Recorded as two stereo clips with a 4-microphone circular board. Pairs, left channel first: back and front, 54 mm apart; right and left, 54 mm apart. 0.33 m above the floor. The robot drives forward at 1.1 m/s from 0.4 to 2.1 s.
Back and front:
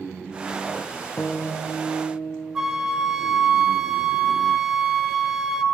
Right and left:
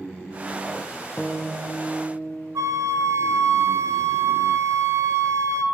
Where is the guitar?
140° right, 0.7 m; by 2.7 s 170° right, 1.5 m.